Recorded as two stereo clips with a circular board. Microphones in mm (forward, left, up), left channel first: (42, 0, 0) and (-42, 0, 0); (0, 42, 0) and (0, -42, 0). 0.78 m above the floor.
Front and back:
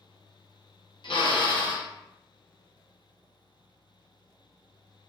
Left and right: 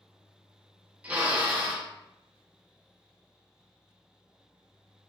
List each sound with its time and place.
1.0 s a drill: 15° right, 0.6 m